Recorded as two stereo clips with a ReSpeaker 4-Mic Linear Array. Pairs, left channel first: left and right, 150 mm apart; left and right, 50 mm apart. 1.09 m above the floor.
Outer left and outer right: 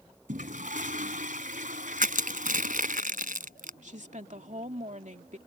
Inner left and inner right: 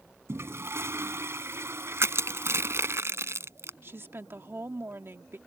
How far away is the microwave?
No microwave in this recording.